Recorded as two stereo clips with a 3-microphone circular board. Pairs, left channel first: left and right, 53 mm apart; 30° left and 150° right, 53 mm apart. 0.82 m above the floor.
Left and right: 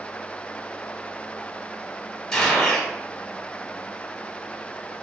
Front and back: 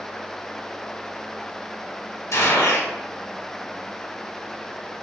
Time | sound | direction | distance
2.3 | a gunshot | 10° left | 0.9 m